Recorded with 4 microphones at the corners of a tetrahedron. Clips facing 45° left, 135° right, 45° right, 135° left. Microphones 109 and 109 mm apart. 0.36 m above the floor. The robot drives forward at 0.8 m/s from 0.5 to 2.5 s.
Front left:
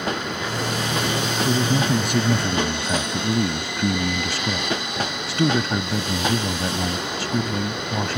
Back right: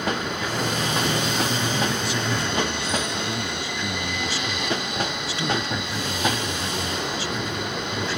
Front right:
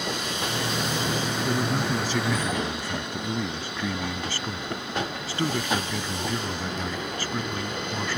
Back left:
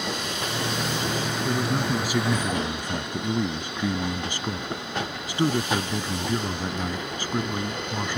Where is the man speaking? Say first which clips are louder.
Front left 4 dB, back left 1 dB; 50° left; by 8.2 s 65° left.